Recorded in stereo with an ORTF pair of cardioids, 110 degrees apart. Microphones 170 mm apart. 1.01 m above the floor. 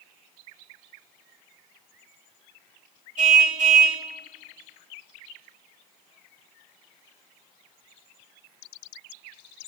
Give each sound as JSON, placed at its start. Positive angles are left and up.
{"t": 3.2, "sound": "a car horn", "azimuth_deg": -50, "distance_m": 2.5}